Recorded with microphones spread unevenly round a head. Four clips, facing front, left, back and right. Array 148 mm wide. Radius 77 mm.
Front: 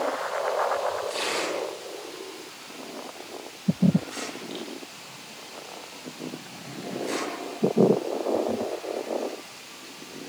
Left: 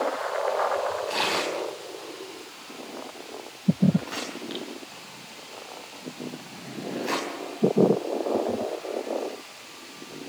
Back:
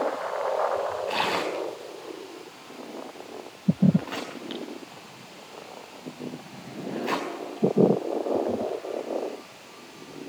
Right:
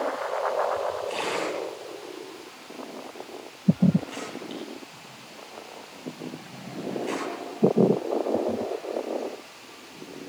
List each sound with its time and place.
1.1 s tearing paper: 170° left, 5 m